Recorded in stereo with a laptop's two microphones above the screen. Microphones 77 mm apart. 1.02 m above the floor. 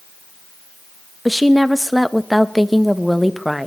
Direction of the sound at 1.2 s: Centre (ahead or behind).